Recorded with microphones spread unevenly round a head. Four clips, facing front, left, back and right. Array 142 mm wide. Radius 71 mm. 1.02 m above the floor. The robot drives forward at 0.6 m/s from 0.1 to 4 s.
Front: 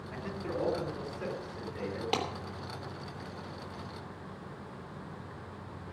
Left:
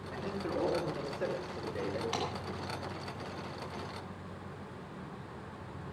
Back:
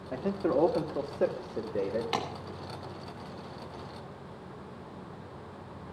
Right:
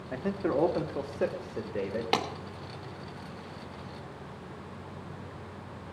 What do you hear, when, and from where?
0.1 s a man speaking: 140° right, 2 m; by 2.0 s 155° right, 3 m
2.1 s a clap: 65° right, 3 m